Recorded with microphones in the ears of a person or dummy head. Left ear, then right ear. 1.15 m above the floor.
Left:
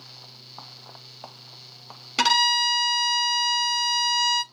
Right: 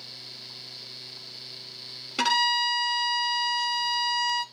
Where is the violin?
10° left (ahead or behind), 0.7 m.